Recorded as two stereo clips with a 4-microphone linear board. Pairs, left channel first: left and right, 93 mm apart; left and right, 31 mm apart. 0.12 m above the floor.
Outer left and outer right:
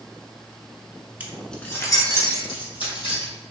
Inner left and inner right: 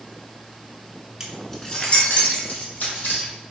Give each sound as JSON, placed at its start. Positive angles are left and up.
{"t": 1.2, "sound": "keys jangling", "side_deg": -20, "distance_m": 0.8}